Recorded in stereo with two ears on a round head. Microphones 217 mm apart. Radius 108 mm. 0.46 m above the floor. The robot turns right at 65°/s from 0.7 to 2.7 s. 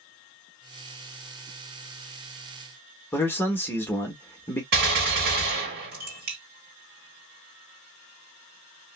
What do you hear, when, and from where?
3.1 s a man speaking: 10° left (ahead or behind), 1.0 m
4.7 s a gunshot: 40° right (ahead or behind), 2 m